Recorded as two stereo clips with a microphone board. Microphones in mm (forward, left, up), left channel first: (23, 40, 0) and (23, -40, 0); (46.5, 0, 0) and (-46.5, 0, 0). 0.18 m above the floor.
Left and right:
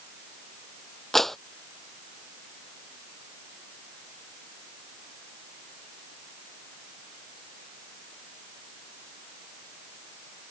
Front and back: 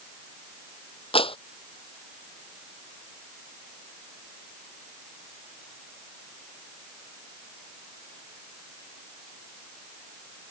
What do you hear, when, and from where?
1.1 s a clap: 5° left